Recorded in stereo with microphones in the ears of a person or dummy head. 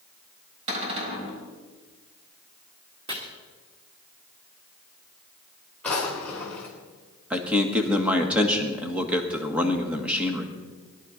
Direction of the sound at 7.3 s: 10° right (ahead or behind).